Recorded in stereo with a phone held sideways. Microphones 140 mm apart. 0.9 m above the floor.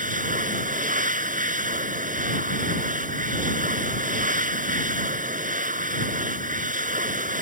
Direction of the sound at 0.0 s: 70° right (ahead or behind).